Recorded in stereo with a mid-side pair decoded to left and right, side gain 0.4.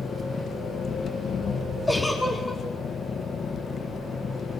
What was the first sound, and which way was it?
An engine running, 45° left.